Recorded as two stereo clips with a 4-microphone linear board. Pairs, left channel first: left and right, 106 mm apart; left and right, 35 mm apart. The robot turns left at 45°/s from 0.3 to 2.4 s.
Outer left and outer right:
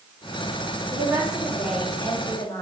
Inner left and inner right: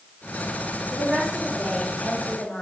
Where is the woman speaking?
145° right, 3 m; by 2.6 s 150° left, 3 m.